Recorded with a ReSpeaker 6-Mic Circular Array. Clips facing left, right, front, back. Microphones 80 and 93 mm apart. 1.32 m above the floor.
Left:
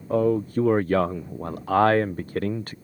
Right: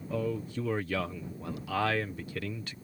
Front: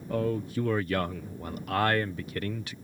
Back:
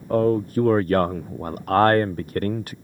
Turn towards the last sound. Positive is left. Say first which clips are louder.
# left 12 dB, back 10 dB
turn(degrees=135)